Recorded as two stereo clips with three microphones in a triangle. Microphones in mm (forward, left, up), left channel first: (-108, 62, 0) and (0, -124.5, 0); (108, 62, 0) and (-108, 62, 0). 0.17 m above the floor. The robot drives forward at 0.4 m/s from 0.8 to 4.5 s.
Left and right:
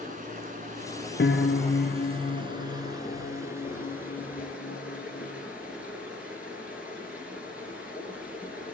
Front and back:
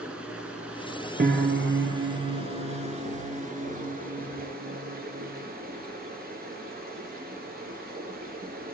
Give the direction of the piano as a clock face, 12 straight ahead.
7 o'clock.